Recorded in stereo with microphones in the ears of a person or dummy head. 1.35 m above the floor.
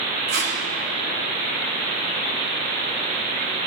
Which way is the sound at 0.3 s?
65° right (ahead or behind).